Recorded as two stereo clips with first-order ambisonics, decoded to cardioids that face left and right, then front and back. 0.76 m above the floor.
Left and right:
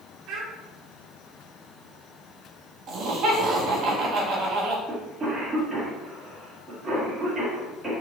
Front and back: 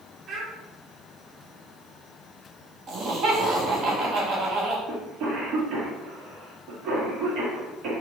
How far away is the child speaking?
About 1.2 m.